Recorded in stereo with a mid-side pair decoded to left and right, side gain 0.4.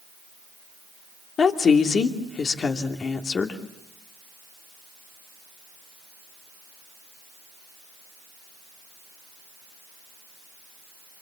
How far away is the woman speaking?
About 2.5 m.